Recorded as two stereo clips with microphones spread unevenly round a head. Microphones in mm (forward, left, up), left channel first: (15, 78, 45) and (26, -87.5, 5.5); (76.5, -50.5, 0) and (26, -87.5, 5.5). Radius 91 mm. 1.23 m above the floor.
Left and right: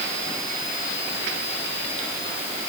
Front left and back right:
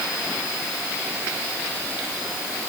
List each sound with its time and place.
Only background noise.